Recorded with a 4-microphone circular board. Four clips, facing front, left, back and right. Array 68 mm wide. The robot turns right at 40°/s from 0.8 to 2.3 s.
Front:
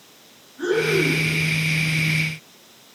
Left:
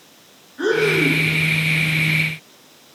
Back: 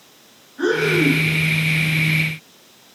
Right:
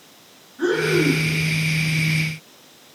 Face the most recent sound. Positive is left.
turn(degrees=-170)